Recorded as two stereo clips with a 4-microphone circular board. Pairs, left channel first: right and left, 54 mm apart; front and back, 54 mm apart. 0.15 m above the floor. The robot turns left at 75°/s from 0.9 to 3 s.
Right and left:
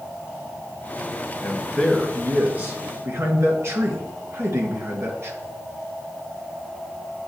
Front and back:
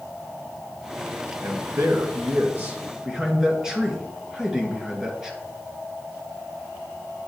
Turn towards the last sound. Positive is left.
turn(degrees=105)